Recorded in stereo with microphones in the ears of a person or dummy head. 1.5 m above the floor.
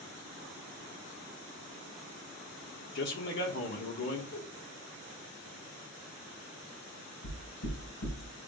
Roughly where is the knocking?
Left.